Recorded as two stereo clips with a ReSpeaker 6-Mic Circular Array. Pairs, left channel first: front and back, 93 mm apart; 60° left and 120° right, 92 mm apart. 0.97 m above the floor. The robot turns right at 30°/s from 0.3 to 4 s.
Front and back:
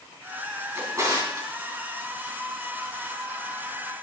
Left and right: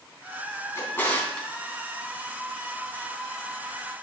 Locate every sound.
0.8 s a drawer: 120° left, 3 m; by 1.5 s 140° left, 3 m